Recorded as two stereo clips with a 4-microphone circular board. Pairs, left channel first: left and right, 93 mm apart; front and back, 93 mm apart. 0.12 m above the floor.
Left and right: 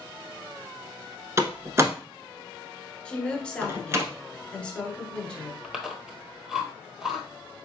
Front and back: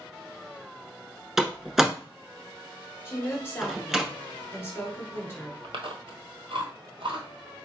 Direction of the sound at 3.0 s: 25° left.